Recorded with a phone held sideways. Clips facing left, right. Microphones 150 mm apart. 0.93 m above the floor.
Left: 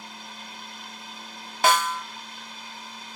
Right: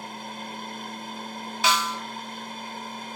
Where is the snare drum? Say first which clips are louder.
Left 4 dB; 50° left (ahead or behind), 0.6 m.